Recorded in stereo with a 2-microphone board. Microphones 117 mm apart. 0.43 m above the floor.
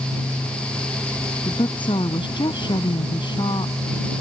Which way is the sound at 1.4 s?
45° left (ahead or behind).